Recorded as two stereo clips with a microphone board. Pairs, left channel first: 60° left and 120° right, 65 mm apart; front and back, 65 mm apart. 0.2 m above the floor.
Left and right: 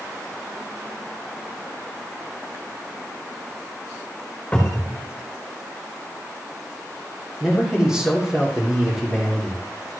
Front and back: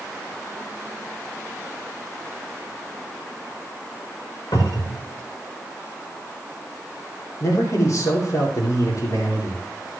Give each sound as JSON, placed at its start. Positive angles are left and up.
{"t": 4.5, "sound": "a cupboard door", "azimuth_deg": -15, "distance_m": 6.0}
{"t": 7.4, "sound": "a man speaking", "azimuth_deg": -40, "distance_m": 6.0}